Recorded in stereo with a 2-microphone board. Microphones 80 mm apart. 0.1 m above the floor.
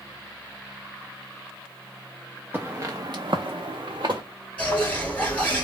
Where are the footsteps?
25° right (ahead or behind), 0.7 m; by 4.2 s 60° right (ahead or behind), 0.8 m.